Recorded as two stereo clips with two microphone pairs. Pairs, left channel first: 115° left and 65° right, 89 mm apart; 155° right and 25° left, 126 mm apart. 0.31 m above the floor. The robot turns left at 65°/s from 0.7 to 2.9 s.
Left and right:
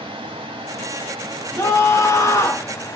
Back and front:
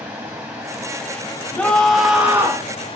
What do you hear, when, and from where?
0.0 s running water: 55° right, 1.9 m; by 3.0 s 160° left, 1.9 m
1.6 s a scream: 140° left, 1.2 m; by 2.7 s 65° left, 1.2 m